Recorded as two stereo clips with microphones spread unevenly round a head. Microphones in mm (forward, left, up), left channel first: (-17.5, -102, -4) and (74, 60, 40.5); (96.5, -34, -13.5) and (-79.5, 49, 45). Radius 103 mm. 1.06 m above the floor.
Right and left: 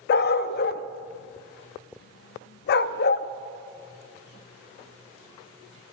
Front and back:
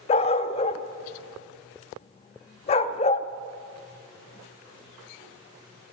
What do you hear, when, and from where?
0.1 s a dog barking: 95° right, 0.5 m